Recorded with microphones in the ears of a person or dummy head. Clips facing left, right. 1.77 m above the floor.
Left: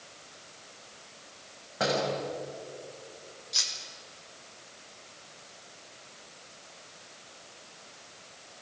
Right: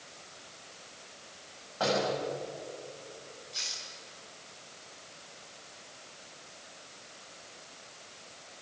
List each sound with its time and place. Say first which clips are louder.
1.8 s a door slam: left 1 dB; 30° left (ahead or behind), 7 m
3.5 s cutlery clinking: left 1 dB; 70° left (ahead or behind), 4 m